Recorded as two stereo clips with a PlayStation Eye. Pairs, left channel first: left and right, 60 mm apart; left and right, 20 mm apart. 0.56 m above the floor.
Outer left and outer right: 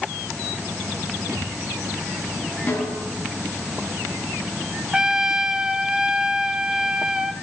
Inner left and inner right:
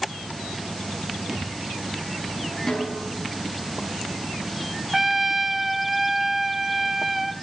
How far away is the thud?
About 5.5 m.